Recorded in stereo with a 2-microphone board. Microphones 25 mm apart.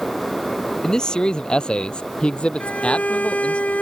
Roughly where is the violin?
Left.